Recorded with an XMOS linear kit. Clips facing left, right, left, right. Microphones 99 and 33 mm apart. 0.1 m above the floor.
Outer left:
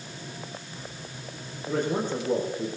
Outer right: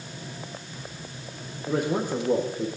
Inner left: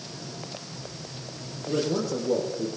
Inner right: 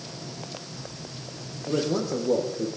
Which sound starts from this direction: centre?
A man speaking, at 1.7 s.